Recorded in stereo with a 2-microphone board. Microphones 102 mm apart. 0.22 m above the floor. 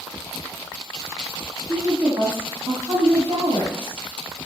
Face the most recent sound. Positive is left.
turn(degrees=-55)  # may be behind; listen again after turning